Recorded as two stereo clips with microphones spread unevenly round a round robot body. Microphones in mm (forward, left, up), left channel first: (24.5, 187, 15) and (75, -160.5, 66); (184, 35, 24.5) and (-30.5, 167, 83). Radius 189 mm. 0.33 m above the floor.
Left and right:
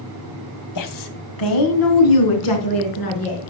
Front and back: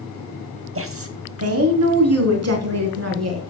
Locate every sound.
0.8 s a woman speaking: 110° left, 2 m; by 3.4 s 125° left, 4.5 m